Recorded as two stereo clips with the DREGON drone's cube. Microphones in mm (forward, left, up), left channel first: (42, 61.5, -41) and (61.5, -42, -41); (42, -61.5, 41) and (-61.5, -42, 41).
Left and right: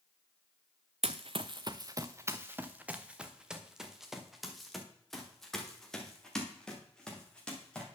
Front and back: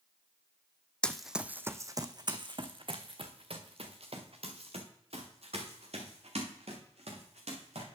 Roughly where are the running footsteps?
Right.